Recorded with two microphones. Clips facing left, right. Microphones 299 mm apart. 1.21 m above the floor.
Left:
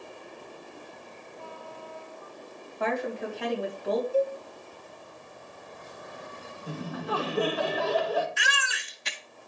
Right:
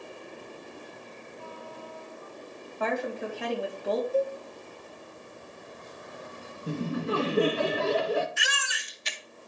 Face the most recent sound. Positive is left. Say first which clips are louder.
# left 2 dB
turn(degrees=75)  # may be behind; listen again after turning